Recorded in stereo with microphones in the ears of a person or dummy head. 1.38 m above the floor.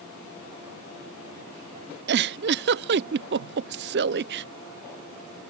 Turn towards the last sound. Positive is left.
turn(degrees=-55)  # may be behind; listen again after turning